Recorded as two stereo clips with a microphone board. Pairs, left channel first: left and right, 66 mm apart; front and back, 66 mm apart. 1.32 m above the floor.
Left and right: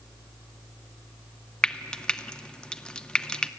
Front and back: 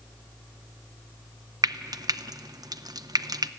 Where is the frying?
165° left, 0.7 m.